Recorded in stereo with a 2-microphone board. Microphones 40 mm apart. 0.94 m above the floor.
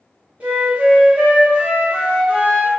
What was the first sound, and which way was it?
A flute, 30° right (ahead or behind).